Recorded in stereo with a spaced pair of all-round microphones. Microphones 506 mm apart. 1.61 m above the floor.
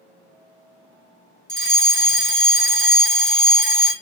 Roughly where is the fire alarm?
Right.